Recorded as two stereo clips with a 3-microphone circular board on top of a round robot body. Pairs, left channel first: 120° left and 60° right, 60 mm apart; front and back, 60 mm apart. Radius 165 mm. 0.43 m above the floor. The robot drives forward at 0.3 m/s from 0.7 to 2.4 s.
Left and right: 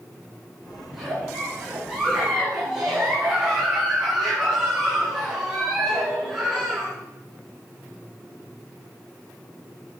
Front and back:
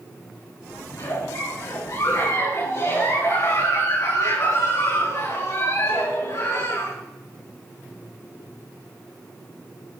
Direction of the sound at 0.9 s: 25° left.